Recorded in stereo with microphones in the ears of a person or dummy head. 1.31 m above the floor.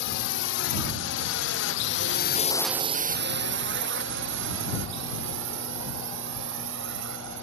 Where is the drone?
75° left (ahead or behind); by 7.4 s 75° right (ahead or behind).